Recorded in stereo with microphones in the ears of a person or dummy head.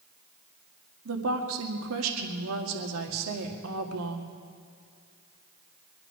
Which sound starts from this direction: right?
A woman speaking, at 1.1 s.